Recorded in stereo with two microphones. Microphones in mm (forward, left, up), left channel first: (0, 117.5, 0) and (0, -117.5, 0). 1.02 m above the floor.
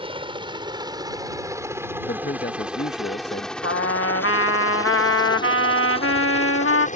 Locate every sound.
0.0 s a helicopter: 25° right (ahead or behind); by 7.0 s 35° left (ahead or behind)
2.0 s a man speaking: 50° left (ahead or behind)
3.6 s a trumpet: 65° left (ahead or behind)